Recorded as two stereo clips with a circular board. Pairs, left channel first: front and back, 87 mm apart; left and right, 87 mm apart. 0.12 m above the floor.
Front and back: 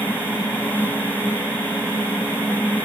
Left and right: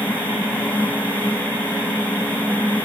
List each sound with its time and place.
Only background noise.